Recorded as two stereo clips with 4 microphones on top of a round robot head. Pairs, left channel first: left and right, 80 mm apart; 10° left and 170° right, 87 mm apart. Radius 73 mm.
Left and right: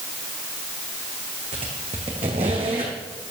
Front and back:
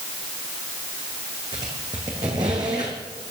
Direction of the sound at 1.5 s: 120° right.